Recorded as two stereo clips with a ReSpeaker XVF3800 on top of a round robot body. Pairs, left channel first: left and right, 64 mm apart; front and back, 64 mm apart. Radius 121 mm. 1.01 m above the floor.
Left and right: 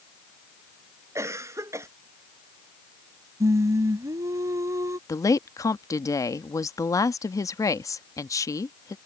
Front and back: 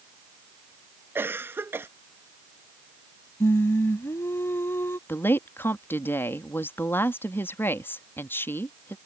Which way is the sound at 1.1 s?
130° right.